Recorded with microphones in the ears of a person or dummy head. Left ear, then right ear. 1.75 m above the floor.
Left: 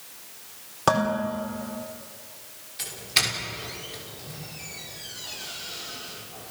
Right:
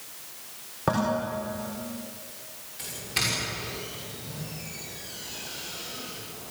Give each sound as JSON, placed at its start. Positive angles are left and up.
{"t": 0.9, "sound": "dishes clattering", "side_deg": 80, "distance_m": 4.0}
{"t": 2.8, "sound": "a doorbell", "side_deg": 35, "distance_m": 5.5}